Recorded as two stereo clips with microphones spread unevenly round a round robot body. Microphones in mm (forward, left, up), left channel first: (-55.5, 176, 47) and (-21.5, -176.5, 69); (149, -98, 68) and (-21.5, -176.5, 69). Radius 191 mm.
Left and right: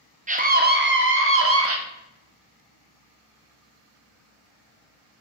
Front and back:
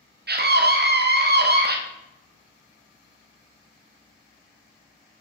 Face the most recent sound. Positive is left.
turn(degrees=-130)